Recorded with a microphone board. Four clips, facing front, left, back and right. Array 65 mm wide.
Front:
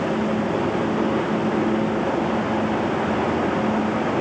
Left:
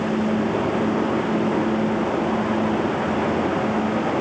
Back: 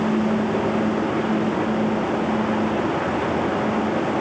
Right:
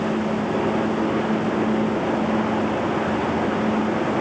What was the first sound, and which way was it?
Only background noise.